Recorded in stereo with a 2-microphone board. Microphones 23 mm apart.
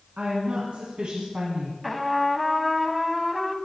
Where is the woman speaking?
65° right (ahead or behind), 2.5 m; by 1.7 s 45° right (ahead or behind), 1.8 m.